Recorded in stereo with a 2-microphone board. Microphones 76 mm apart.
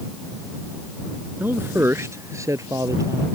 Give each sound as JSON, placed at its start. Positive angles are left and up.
{"t": 1.4, "sound": "a man speaking", "side_deg": -25}